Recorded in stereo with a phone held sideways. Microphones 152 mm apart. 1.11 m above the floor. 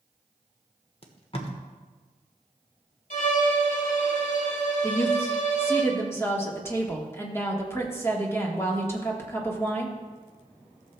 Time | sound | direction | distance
1.0 | tape being pulled | 40° left (ahead or behind) | 1.1 m
3.1 | a violin | 65° left (ahead or behind) | 2.0 m
4.8 | a woman speaking | 15° left (ahead or behind) | 1.4 m